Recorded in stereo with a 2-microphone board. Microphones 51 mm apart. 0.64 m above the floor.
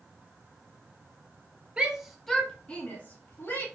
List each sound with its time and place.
1.8 s a shout: 20° right (ahead or behind), 1.0 m; by 3.6 s 45° left (ahead or behind), 1.9 m